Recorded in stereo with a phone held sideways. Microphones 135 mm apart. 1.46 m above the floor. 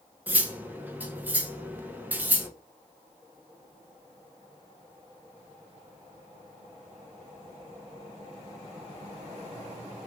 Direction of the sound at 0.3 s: 10° right (ahead or behind).